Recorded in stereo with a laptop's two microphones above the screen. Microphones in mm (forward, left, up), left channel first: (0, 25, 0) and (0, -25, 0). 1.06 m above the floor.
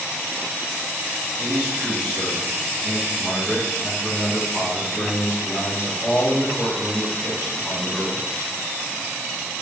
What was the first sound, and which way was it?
A man speaking, 20° right (ahead or behind).